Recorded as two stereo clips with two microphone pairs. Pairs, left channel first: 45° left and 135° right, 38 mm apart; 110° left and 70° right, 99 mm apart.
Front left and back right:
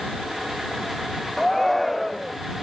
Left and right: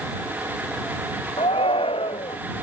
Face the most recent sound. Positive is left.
turn(degrees=130)